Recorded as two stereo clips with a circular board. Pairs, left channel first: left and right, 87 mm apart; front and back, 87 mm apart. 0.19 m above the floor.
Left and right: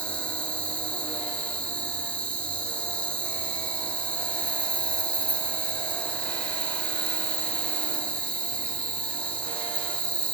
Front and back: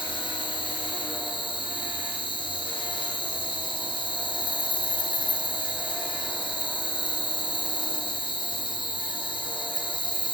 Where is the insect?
15° left, 0.9 m.